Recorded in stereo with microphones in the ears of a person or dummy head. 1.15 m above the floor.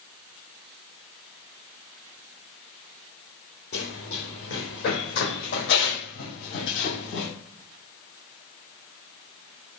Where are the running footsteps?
40° left (ahead or behind), 2 m; by 7.3 s 55° left (ahead or behind), 2.5 m.